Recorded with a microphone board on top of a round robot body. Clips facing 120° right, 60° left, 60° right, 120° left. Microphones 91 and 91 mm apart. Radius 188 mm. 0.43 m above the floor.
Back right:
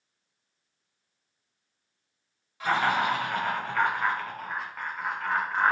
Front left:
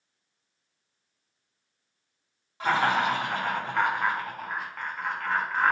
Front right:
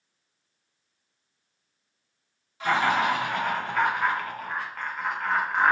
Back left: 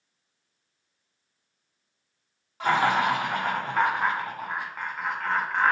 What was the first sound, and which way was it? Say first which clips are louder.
Laughter: front left 1 dB, back left 1 dB; 105° left.